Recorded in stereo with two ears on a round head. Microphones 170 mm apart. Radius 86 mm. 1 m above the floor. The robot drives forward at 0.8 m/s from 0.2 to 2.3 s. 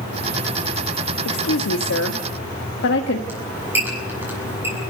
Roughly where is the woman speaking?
Left.